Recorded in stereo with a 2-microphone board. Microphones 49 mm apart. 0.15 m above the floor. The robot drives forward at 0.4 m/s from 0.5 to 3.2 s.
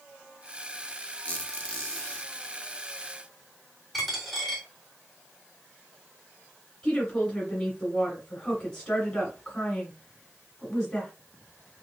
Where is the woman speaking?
10° left (ahead or behind), 1.1 m.